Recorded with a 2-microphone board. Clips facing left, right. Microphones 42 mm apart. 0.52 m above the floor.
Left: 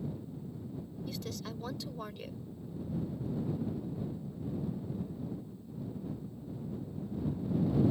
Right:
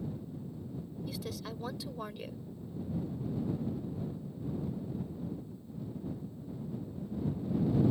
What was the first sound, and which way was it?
A woman speaking, 5° right (ahead or behind).